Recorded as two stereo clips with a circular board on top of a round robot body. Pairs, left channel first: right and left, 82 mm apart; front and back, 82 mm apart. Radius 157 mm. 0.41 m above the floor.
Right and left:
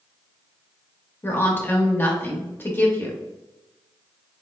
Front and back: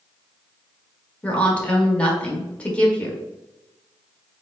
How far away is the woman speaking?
About 1.3 m.